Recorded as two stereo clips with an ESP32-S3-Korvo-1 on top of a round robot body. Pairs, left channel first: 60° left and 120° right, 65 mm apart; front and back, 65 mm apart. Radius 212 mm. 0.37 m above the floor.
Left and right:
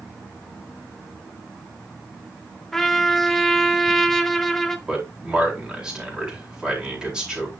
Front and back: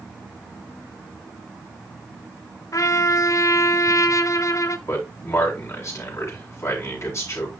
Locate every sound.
2.7 s a trumpet: 25° right, 0.8 m
4.9 s a man speaking: 40° right, 4.5 m